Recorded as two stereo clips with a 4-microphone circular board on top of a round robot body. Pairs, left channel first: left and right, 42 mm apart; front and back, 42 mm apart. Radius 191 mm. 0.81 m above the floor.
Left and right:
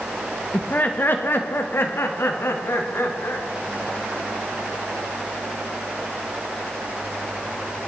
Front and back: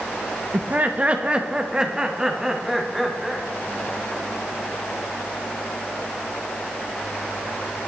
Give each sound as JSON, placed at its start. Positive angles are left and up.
{"t": 0.5, "sound": "laughter", "azimuth_deg": 140, "distance_m": 1.3}